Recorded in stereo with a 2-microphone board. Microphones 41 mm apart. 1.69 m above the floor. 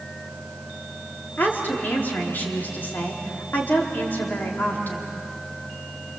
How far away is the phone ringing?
I don't hear a phone ringing.